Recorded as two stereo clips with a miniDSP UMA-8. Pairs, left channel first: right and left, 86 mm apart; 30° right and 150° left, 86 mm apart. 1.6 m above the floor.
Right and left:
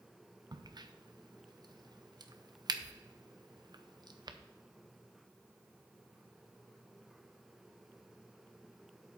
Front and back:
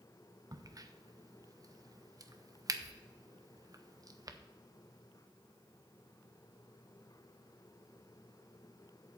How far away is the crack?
About 0.7 m.